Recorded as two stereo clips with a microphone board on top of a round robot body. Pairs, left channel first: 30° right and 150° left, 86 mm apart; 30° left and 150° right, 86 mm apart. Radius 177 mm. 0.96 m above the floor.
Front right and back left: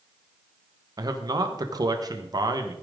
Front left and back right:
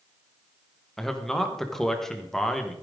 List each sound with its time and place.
1.0 s a man speaking: 115° left, 1.6 m